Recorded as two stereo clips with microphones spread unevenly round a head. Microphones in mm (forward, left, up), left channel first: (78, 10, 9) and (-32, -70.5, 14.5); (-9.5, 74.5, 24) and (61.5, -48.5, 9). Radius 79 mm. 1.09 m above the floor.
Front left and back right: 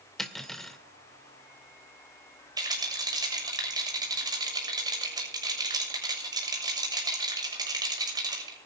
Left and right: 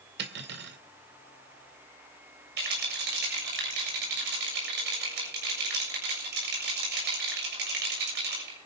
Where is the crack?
No crack in this recording.